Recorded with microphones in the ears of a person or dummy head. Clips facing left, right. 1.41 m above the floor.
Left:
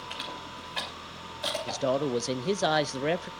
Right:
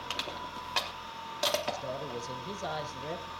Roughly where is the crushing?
Right.